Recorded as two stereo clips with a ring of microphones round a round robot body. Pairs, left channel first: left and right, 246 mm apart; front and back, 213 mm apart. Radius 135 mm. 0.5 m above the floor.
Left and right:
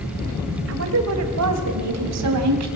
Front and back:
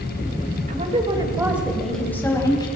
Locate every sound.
0.7 s a woman speaking: 120° right, 2.5 m; by 2.7 s 75° right, 3.5 m